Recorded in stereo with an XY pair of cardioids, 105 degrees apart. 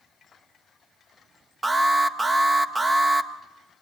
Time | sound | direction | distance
1.6 | an alarm | 20° right | 1.6 m